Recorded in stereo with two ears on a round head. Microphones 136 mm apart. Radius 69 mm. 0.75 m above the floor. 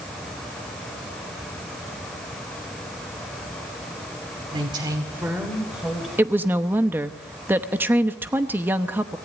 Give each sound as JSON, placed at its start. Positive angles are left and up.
{"t": 4.5, "sound": "a woman speaking", "side_deg": -35, "distance_m": 2.5}
{"t": 6.2, "sound": "a woman speaking", "side_deg": -15, "distance_m": 0.8}